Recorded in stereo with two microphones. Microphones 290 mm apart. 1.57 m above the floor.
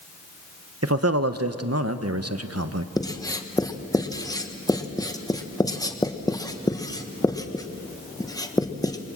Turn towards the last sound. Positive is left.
turn(degrees=10)  # may be behind; listen again after turning